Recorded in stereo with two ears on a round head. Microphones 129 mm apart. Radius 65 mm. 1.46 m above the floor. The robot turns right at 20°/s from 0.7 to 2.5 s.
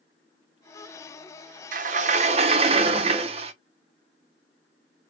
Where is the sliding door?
55° right (ahead or behind), 1.1 m; by 3.5 s 40° right (ahead or behind), 1.1 m.